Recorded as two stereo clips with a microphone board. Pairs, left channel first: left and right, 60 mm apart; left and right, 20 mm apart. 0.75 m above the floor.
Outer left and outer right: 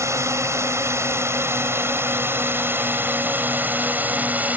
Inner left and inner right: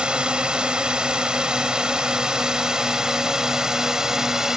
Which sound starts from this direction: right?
A drone, at 0.0 s.